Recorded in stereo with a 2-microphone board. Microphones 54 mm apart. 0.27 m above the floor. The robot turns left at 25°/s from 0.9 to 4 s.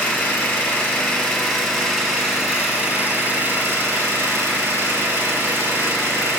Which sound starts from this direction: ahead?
An engine running, at 0.0 s.